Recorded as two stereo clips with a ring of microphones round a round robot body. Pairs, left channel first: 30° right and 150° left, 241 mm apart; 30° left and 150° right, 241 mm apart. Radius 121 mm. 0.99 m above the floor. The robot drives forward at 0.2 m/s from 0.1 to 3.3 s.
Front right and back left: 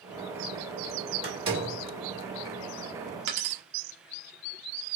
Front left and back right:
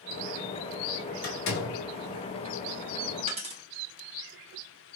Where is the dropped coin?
145° left, 1.1 m.